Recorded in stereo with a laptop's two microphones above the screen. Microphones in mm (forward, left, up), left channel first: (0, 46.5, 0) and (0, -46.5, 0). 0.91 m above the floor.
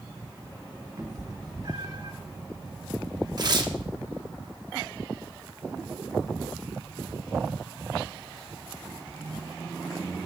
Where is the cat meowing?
45° right (ahead or behind), 1.4 m.